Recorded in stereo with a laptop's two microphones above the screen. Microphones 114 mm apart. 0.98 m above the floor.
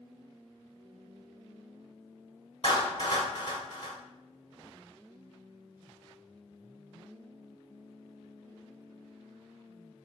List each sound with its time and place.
2.6 s a clap: 45° left (ahead or behind), 2 m